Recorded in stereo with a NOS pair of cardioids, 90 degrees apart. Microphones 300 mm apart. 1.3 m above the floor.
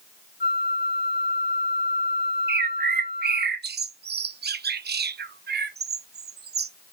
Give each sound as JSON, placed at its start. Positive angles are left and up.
{"t": 0.4, "sound": "a flute", "azimuth_deg": 30, "distance_m": 2.5}
{"t": 2.5, "sound": "a bird", "azimuth_deg": -35, "distance_m": 0.9}